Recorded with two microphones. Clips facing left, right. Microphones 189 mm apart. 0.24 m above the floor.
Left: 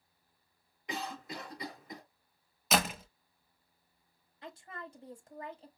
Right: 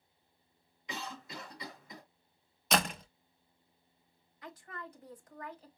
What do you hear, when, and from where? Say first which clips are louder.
0.9 s a cough: left 4 dB; 55° left (ahead or behind), 2.5 m
2.7 s a door slam: left 1 dB; 5° left (ahead or behind), 0.6 m
4.4 s a woman speaking: left 1 dB; 30° left (ahead or behind), 1.1 m